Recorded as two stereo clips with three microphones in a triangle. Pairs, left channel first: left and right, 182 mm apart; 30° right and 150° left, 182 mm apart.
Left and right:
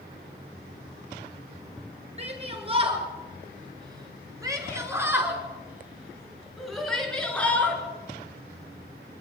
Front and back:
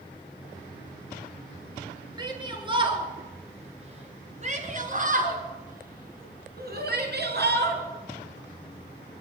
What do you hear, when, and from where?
2.2 s a shout: 145° right, 5 m; by 7.8 s 170° left, 5 m